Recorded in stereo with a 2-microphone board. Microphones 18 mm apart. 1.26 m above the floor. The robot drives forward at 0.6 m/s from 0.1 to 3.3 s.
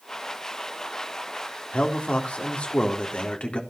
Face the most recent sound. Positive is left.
turn(degrees=75)  # may be behind; listen again after turning